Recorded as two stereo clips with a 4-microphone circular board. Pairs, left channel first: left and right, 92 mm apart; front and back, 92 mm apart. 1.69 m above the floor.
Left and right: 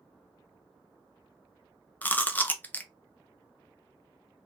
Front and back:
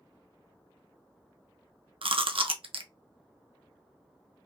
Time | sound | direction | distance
2.0 | chewing | 160° left | 0.5 m